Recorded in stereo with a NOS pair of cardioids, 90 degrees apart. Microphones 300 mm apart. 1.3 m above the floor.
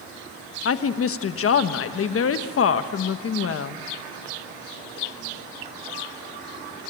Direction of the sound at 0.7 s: 45° left.